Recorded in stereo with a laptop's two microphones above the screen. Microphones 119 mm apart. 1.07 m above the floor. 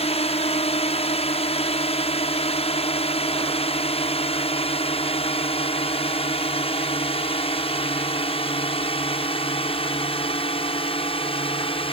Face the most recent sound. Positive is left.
turn(degrees=50)  # may be behind; listen again after turning